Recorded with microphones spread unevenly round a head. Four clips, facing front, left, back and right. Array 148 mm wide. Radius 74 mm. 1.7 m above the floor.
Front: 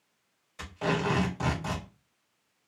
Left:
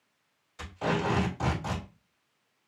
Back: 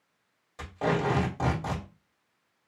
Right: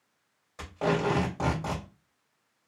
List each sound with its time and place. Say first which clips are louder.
0.6 s tape being pulled: right 2 dB, back 2 dB; 130° right, 2.5 m